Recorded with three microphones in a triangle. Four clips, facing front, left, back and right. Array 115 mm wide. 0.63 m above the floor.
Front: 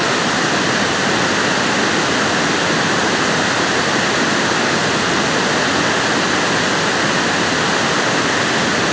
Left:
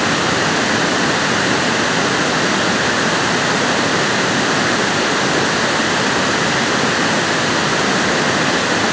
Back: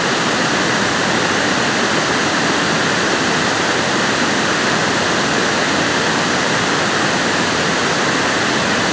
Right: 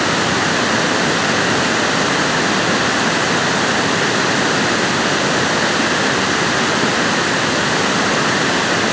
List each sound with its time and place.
Only background noise.